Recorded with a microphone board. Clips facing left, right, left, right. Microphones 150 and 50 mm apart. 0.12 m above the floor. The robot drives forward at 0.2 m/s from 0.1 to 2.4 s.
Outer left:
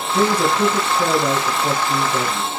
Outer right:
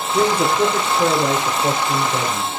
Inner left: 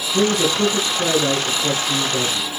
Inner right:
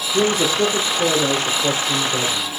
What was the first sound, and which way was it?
A man speaking, 15° right (ahead or behind).